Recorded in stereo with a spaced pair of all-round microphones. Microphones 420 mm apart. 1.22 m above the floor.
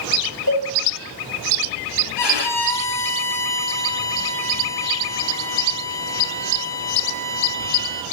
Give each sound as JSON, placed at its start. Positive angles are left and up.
{"t": 0.5, "sound": "a cowbell", "side_deg": 55, "distance_m": 3.0}
{"t": 2.2, "sound": "a violin", "side_deg": 80, "distance_m": 0.9}